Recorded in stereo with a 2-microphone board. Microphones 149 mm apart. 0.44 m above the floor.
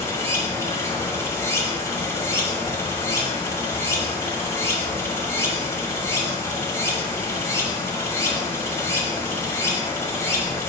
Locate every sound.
0.0 s running water: 20° left (ahead or behind), 1.4 m